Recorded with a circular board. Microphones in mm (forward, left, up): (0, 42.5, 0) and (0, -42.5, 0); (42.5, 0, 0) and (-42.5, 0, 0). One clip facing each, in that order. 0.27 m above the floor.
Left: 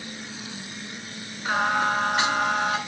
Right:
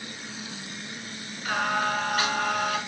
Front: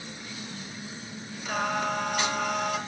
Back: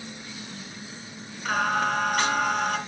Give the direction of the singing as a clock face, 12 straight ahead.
7 o'clock.